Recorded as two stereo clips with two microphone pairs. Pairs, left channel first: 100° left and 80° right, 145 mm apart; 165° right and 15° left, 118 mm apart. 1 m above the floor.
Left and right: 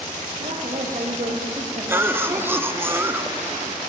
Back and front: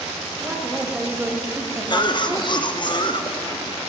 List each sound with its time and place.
0.4 s a woman speaking: 55° right, 2 m; by 2.6 s 60° right, 0.9 m
1.9 s a cough: 145° right, 0.6 m